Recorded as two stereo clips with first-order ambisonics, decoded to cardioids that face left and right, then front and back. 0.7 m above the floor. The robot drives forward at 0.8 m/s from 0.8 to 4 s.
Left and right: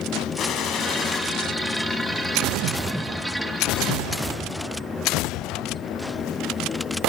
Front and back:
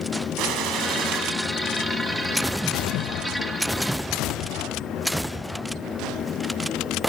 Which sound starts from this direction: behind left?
A gunshot, at 0.4 s.